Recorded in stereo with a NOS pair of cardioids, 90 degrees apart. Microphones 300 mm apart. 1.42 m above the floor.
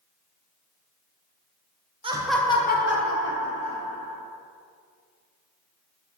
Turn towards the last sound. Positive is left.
turn(degrees=75)